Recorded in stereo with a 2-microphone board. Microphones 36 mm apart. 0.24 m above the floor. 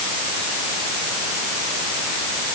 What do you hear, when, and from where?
Only background noise.